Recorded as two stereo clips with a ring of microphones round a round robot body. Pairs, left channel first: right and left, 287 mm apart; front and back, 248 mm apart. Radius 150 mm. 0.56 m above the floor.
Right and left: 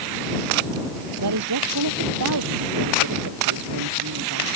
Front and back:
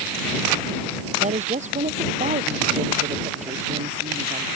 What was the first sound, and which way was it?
A woman speaking, 120° left.